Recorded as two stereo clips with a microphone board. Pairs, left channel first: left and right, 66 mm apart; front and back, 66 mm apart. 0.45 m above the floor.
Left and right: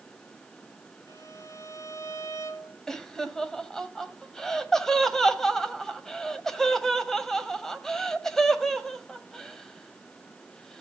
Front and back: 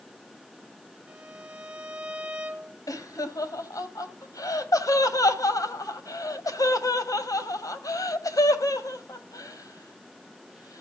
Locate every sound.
1.1 s a violin: 110° left, 1.5 m
2.9 s laughter: 5° left, 2 m